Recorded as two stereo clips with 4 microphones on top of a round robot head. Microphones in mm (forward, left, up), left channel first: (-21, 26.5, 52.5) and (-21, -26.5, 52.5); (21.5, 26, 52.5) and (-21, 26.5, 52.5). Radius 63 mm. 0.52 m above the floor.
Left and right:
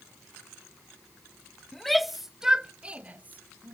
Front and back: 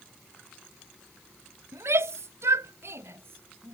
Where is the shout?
175° left; by 3.7 s 140° right.